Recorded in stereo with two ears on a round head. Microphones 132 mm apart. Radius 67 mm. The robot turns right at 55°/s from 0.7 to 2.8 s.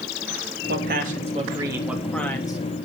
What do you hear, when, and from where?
0.7 s a man speaking: 75° right, 3 m; by 2.6 s 30° left, 3 m